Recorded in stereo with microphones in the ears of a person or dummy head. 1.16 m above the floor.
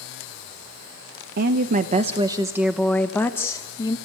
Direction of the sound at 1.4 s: 55° right (ahead or behind).